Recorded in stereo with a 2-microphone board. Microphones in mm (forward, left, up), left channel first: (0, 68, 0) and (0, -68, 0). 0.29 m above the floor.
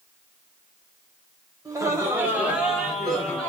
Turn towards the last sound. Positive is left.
turn(degrees=10)  # may be behind; listen again after turning